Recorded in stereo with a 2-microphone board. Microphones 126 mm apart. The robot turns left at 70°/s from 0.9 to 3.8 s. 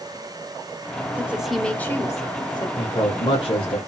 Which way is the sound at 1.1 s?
155° right.